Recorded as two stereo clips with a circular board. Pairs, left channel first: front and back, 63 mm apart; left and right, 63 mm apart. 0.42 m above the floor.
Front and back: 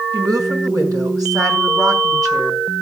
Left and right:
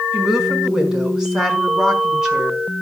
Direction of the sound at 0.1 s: 170° right.